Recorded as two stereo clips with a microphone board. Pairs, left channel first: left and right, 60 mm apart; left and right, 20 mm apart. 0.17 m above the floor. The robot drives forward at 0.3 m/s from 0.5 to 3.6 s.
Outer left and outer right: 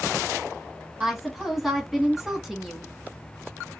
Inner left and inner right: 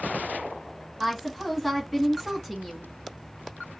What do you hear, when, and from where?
1.0 s a woman speaking: 5° right (ahead or behind), 1.1 m